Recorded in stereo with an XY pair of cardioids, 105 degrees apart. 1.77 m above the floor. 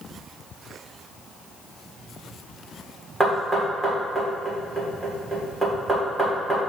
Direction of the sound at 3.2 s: 20° right.